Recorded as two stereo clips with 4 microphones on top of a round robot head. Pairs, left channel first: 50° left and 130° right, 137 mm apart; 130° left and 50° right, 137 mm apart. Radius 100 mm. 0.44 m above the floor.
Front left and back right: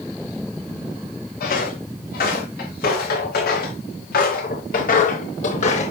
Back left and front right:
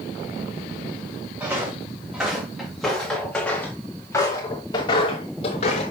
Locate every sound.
1.4 s footsteps: 30° left, 5.5 m; by 5.9 s 90° left, 4 m